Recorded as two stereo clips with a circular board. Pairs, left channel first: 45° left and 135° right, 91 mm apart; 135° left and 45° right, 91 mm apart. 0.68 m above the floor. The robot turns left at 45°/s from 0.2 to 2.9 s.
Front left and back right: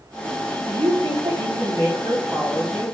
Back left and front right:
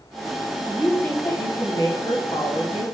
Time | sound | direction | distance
0.7 | a woman speaking | 140° right | 5 m